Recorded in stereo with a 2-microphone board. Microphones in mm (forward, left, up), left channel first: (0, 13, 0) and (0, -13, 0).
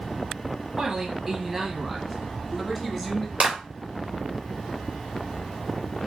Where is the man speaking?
20° right (ahead or behind), 1.0 m; by 3.3 s 10° left (ahead or behind), 1.9 m.